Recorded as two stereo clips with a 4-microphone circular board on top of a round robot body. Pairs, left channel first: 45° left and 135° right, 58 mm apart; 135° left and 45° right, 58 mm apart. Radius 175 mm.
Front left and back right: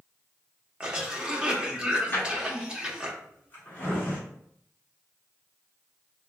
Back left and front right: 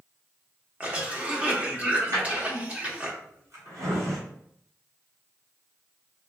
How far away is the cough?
About 1.1 m.